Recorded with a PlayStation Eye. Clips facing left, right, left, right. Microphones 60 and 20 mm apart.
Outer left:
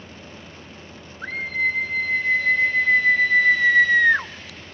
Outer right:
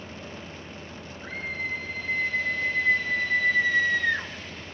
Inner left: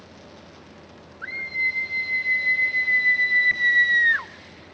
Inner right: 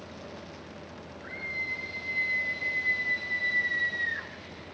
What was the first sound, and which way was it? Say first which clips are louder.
A scream: outer left 9 dB, inner left 9 dB; 85° left.